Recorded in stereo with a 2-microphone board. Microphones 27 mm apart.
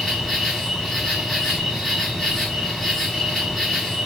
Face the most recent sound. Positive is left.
turn(degrees=10)  # may be behind; listen again after turning